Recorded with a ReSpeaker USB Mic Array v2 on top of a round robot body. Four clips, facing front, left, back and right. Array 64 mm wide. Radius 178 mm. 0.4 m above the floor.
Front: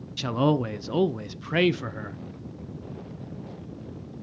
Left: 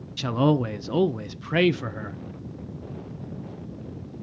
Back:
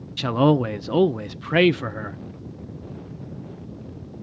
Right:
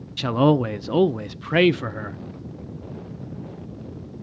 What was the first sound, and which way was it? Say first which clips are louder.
A man speaking: right 4 dB, back 5 dB; 140° right.